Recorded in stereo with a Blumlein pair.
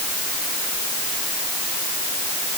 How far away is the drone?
No drone in this recording.